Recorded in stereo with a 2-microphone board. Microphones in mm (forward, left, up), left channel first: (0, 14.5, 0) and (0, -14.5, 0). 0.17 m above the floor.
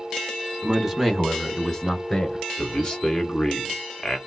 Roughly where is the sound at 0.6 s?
Centre.